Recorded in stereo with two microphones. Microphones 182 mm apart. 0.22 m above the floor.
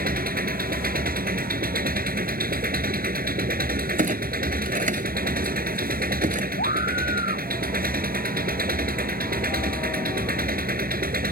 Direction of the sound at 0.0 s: 55° right (ahead or behind).